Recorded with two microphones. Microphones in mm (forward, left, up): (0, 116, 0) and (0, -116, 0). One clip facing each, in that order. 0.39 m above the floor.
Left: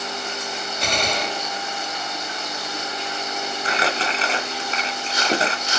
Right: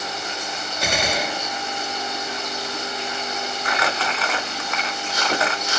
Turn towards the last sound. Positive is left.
turn(degrees=30)  # may be behind; listen again after turning